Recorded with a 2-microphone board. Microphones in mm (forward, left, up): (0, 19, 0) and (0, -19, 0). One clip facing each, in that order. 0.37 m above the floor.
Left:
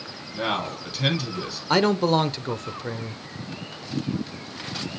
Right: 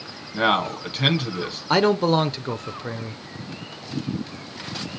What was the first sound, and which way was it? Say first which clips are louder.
A man speaking: right 6 dB; 30° right (ahead or behind).